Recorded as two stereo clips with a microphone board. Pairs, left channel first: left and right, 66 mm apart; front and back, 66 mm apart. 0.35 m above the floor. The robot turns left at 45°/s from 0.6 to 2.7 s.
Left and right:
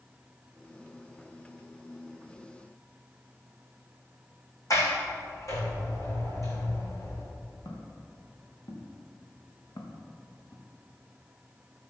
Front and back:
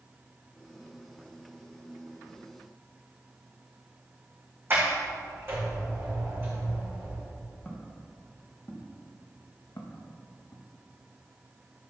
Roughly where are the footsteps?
Left.